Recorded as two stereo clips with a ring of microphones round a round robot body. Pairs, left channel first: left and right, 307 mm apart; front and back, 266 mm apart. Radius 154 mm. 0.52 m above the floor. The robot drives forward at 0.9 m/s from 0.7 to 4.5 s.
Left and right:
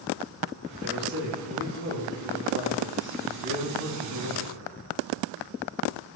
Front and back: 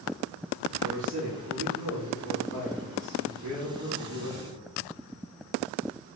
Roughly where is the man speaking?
Behind right.